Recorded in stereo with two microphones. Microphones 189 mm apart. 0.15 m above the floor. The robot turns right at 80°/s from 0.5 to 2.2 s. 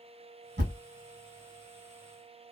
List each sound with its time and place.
0.6 s a thud: 65° right (ahead or behind), 1.7 m; by 0.8 s 50° right (ahead or behind), 1.7 m